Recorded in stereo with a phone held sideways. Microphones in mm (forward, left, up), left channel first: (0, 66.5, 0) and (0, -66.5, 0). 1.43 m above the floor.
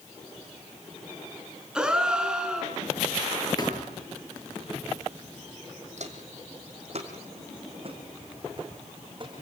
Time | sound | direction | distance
1.8 | a gasp | 5° right (ahead or behind) | 3.5 m
3.6 | a thud | 30° left (ahead or behind) | 8.5 m
6.0 | footsteps | 60° right (ahead or behind) | 4 m